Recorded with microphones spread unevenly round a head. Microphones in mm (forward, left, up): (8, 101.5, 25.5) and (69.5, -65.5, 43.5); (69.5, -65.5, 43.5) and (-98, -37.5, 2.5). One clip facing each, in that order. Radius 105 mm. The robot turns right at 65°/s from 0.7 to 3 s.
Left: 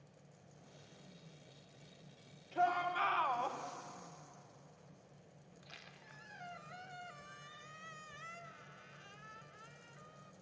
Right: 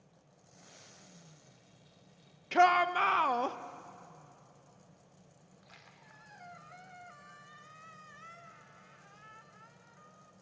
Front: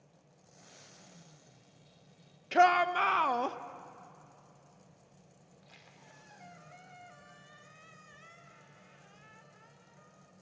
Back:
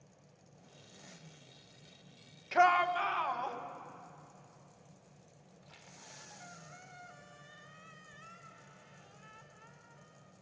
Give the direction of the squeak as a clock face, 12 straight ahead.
10 o'clock.